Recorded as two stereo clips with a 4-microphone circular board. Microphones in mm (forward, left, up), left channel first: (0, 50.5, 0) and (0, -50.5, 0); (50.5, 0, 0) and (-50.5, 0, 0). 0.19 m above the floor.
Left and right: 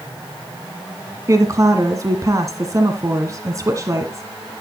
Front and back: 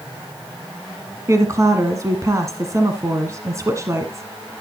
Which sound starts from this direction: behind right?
A woman speaking, at 1.3 s.